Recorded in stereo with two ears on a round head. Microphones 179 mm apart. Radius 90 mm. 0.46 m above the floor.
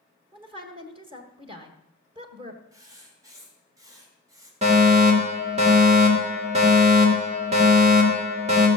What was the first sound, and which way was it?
A woman speaking, 30° right (ahead or behind).